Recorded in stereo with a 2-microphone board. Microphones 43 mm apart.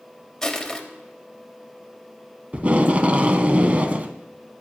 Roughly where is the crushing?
Centre.